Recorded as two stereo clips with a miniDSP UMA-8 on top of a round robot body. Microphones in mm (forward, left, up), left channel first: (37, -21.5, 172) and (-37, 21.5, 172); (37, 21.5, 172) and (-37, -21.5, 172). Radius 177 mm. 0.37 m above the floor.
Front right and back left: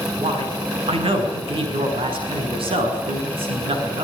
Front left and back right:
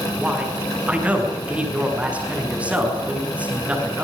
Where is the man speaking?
135° left, 7 m.